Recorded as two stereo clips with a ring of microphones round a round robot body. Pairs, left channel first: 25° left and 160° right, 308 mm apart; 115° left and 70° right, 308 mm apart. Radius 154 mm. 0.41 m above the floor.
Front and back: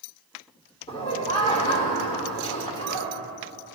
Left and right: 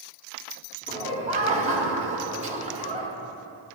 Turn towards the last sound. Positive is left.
turn(degrees=-30)